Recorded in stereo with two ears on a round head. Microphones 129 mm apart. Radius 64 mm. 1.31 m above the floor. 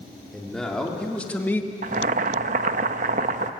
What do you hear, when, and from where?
0.3 s a man speaking: 5° left (ahead or behind), 3.5 m; by 1.7 s 15° left (ahead or behind), 1.5 m
1.8 s boiling: 55° right (ahead or behind), 0.8 m